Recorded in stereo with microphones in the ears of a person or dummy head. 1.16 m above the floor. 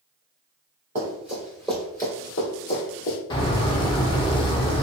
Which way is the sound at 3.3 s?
25° left (ahead or behind).